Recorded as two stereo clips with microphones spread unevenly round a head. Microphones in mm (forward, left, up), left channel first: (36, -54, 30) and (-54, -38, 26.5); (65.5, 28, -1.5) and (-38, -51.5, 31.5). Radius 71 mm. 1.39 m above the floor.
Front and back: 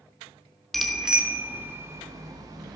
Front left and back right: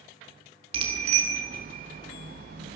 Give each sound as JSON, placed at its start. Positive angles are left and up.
{"t": 0.7, "sound": "a bicycle bell", "azimuth_deg": -100, "distance_m": 3.0}